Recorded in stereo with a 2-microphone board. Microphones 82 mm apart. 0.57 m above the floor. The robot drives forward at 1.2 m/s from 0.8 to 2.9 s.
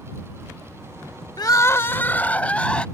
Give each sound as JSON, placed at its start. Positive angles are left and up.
{"t": 1.4, "sound": "crying", "side_deg": 55}